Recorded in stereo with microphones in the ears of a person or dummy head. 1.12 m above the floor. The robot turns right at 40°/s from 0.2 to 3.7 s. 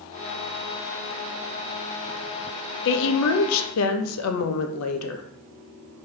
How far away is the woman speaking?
About 0.5 m.